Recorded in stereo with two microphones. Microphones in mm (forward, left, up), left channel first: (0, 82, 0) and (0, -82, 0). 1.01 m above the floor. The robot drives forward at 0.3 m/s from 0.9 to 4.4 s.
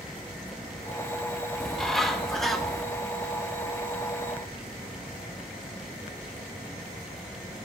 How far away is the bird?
About 0.7 m.